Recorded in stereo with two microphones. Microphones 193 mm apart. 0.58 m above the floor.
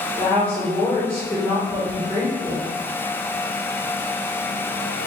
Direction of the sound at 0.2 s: 10° left (ahead or behind).